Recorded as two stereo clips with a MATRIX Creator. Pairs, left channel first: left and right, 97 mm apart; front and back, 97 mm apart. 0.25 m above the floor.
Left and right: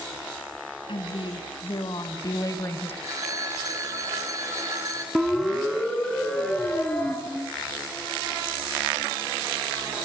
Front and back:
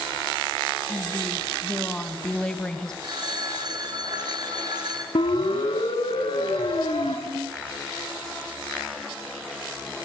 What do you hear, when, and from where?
0.9 s a woman speaking: 75° left, 2.5 m; by 2.9 s 70° left, 1.2 m
3.0 s a phone ringing: 140° right, 2.5 m
5.2 s a siren: 5° right, 2.5 m; by 7.2 s 15° left, 3.5 m
7.3 s a ringtone: 175° right, 1.5 m